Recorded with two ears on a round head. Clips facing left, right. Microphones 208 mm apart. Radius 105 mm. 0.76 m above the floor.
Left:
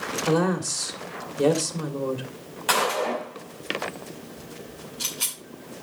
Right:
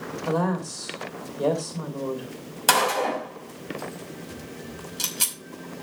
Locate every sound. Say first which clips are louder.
0.3 s a woman speaking: left 3 dB; 35° left (ahead or behind), 2.5 m
2.7 s a gunshot: right 1 dB; 60° right (ahead or behind), 5.5 m